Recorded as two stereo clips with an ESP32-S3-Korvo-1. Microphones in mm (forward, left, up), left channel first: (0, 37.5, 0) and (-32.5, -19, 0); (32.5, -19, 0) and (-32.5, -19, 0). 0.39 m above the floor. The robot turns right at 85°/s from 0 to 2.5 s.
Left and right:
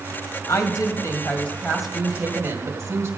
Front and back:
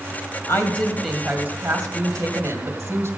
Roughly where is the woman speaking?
Ahead left.